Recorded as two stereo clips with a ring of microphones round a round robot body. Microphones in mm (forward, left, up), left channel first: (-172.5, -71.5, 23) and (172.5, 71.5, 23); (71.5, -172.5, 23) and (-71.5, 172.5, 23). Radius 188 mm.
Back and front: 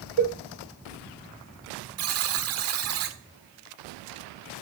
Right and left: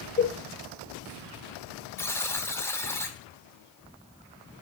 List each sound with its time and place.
0.2 s a cowbell: 10° right, 1.6 m
2.0 s a buzzer: 10° left, 1.4 m